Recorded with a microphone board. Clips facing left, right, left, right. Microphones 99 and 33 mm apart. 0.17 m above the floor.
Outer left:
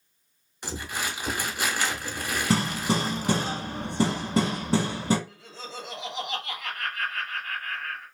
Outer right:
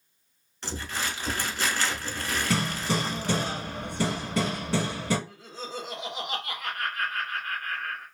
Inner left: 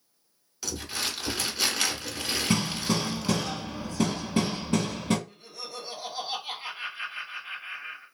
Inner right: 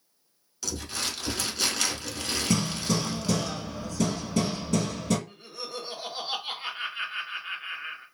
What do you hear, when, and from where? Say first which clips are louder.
0.6 s crumpling: even, inner left 1 dB; 15° left (ahead or behind), 0.9 m
2.5 s hammering: outer left 4 dB, even; 30° left (ahead or behind), 0.9 m
5.3 s laughter: outer right 3 dB, inner right 3 dB; 50° right (ahead or behind), 1.6 m